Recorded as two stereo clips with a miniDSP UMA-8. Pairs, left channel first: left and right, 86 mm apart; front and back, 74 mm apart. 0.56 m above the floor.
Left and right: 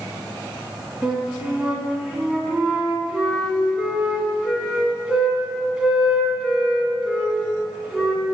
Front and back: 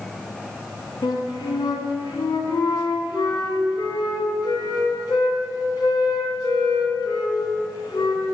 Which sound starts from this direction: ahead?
A flute, at 1.0 s.